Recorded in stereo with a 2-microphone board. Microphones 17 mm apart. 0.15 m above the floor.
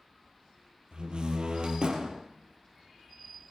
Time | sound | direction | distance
0.9 | a door slam | 60° right (ahead or behind) | 3 m